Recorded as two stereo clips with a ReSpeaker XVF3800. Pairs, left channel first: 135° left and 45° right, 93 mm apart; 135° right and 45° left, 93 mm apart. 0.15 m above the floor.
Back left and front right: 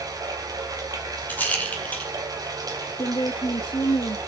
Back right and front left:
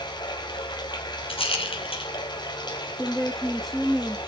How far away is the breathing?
No breathing in this recording.